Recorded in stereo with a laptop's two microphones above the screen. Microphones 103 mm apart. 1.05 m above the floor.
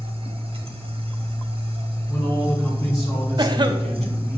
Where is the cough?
45° right (ahead or behind), 0.7 m.